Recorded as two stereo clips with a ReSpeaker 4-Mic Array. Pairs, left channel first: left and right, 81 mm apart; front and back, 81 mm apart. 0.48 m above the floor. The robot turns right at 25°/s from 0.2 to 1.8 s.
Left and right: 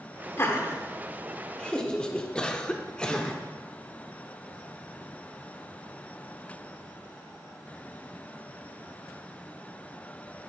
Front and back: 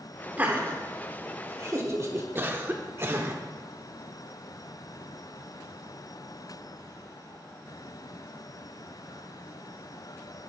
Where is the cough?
155° left, 0.8 m.